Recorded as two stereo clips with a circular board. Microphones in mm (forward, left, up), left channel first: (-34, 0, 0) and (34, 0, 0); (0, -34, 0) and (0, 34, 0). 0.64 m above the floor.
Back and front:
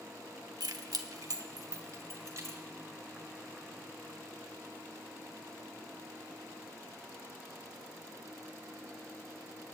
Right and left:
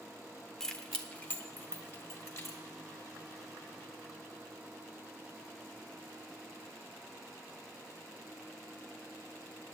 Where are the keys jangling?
5° right, 0.9 m; by 2.6 s 40° right, 2.0 m.